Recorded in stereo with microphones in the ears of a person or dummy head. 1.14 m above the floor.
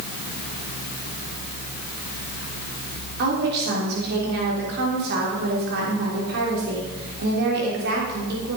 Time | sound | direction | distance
3.2 | a woman speaking | 55° right (ahead or behind) | 3.5 m